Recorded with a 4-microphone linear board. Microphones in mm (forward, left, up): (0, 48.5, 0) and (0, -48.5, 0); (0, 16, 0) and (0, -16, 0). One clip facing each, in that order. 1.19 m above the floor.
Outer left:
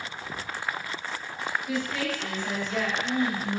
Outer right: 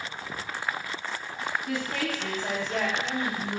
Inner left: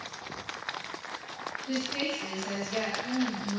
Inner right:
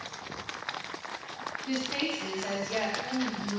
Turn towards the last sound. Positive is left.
turn(degrees=-20)  # may be behind; listen again after turning